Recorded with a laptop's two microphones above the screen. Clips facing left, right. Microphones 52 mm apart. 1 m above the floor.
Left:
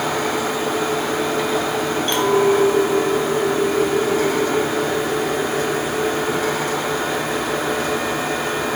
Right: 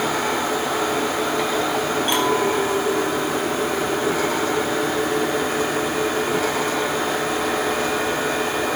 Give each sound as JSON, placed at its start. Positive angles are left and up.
{"t": 2.1, "sound": "a clink", "side_deg": -15, "distance_m": 3.5}